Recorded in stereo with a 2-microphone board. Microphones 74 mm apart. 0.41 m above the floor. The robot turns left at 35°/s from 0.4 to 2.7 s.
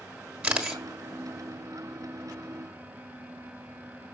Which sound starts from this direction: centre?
A camera shutter, at 0.4 s.